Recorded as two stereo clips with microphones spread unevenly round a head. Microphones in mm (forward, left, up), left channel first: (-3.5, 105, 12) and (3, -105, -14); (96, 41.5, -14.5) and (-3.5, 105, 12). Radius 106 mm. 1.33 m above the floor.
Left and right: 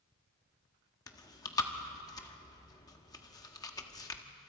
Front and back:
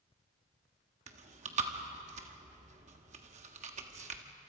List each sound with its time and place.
1.1 s chewing: 165° left, 1.5 m